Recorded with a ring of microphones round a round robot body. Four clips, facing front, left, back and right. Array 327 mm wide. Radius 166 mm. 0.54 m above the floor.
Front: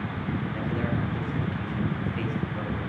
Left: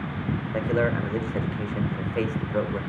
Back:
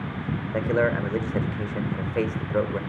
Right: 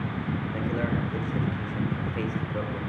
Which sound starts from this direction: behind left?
A man speaking, at 0.5 s.